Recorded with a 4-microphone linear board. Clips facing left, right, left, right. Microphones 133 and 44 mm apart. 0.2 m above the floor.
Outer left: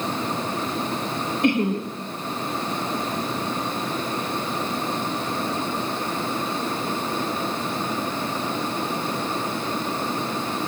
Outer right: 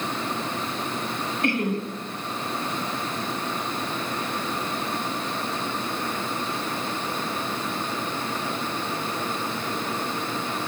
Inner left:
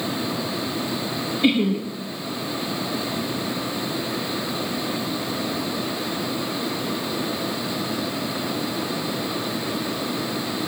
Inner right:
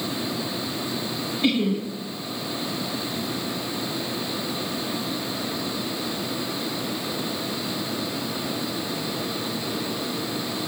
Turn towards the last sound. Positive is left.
turn(degrees=20)  # may be behind; listen again after turning